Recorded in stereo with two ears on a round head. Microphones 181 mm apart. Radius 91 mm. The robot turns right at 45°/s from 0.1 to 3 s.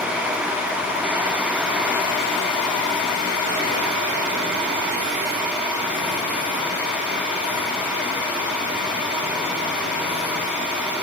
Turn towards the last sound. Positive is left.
No sound to turn to.